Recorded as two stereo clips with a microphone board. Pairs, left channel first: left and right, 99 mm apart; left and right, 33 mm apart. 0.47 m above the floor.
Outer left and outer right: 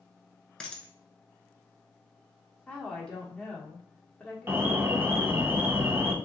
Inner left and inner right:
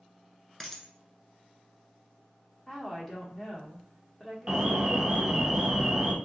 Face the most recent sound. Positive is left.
turn(degrees=-20)  # may be behind; listen again after turning